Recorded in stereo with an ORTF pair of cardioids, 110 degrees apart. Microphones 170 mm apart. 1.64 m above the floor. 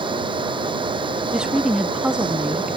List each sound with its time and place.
0.0 s a fan: 30° right
1.3 s a woman speaking: 5° right